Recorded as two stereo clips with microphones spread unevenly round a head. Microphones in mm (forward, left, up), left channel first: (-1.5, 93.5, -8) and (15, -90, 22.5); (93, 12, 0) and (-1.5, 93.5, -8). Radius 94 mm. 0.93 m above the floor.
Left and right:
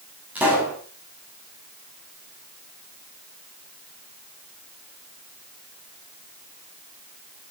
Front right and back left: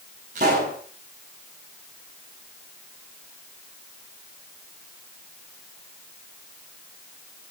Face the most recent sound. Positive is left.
turn(degrees=-165)